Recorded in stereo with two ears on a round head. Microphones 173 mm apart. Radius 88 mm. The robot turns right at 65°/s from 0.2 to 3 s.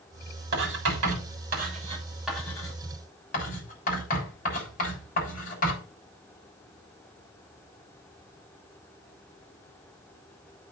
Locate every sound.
0.5 s writing: 60° right (ahead or behind), 7 m; by 5.8 s 45° left (ahead or behind), 7 m